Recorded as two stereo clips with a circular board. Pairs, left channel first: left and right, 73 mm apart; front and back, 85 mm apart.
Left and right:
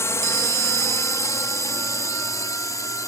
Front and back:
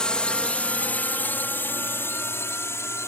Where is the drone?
75° left; by 3.1 s 55° left.